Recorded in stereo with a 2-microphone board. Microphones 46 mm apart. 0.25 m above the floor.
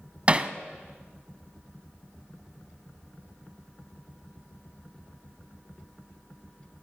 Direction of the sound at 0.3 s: 30° right (ahead or behind).